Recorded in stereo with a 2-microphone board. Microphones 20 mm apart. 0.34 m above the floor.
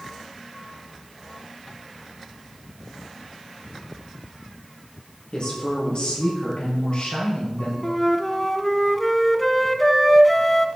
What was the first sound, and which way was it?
A woman speaking, 50° left (ahead or behind).